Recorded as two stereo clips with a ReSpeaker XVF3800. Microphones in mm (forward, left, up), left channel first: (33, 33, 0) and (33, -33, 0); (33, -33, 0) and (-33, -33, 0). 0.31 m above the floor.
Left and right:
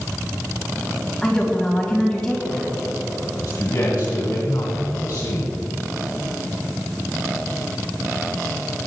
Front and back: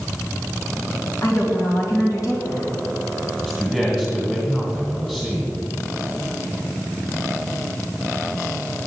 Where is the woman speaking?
10° left, 2 m.